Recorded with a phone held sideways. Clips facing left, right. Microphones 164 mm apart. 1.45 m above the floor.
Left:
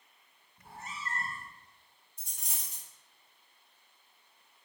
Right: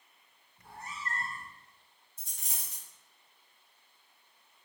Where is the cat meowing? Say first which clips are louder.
Even; 20° left (ahead or behind), 1.0 m.